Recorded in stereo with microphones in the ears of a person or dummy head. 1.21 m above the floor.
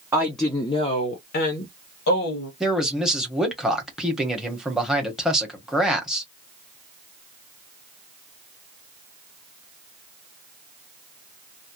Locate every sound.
0.1 s a woman speaking: 10° right (ahead or behind), 0.5 m; by 2.5 s 80° left, 1.1 m
2.6 s a man speaking: centre (ahead or behind), 0.9 m